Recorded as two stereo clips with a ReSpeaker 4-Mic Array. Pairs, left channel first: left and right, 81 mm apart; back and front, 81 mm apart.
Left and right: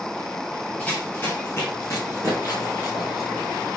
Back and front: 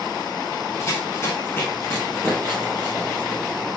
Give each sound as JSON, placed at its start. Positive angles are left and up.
{"t": 0.8, "sound": "running footsteps", "azimuth_deg": 150, "distance_m": 1.7}